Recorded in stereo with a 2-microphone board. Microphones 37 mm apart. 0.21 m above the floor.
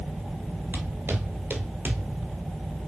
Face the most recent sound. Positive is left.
turn(degrees=-55)  # may be behind; listen again after turning